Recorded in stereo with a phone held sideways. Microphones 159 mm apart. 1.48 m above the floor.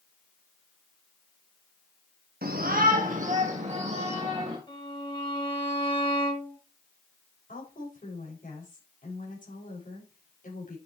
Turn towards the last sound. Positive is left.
turn(degrees=60)  # may be behind; listen again after turning